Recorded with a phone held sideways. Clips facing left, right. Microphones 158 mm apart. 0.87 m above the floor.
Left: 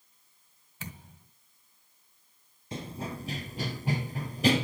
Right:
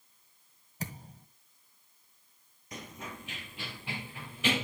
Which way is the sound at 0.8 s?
40° right (ahead or behind).